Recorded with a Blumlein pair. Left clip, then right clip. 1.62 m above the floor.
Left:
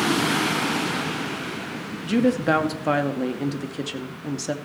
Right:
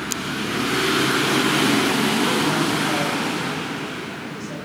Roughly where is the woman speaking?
Ahead left.